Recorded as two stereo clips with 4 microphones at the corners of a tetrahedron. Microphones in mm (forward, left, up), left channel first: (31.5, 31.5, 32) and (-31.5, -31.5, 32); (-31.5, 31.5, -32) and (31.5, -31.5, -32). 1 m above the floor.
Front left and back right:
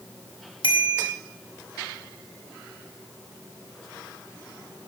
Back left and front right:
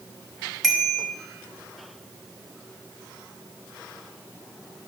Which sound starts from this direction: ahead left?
A bicycle bell, at 0.6 s.